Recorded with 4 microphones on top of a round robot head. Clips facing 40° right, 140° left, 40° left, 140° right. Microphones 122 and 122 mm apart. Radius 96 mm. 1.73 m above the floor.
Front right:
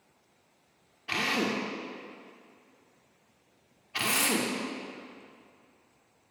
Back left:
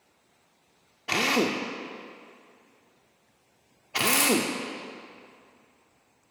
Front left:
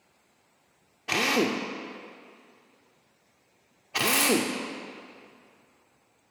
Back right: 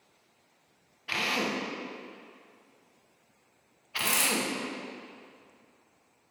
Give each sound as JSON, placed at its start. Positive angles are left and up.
{"t": 1.1, "sound": "a drill", "azimuth_deg": 90, "distance_m": 0.6}
{"t": 4.0, "sound": "a dropped coin", "azimuth_deg": -175, "distance_m": 2.0}